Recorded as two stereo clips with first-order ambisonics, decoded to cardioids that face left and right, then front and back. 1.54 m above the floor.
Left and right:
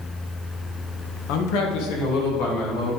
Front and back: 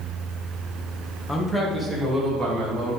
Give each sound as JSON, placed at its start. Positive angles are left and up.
{"t": 1.3, "sound": "a man speaking", "azimuth_deg": 75, "distance_m": 1.4}